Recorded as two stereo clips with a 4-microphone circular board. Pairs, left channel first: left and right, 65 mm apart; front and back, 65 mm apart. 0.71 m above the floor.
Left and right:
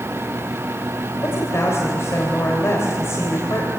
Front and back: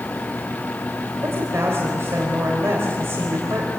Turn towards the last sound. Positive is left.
turn(degrees=135)